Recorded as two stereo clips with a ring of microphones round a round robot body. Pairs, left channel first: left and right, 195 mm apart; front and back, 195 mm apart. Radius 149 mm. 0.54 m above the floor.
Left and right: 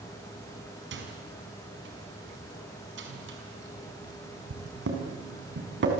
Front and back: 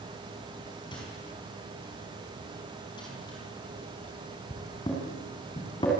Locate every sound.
0.9 s a microwave: 75° right, 5.5 m